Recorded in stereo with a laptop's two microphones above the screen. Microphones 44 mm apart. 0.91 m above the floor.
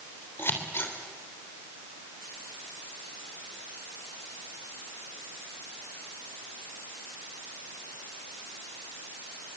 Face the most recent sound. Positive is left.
turn(degrees=60)  # may be behind; listen again after turning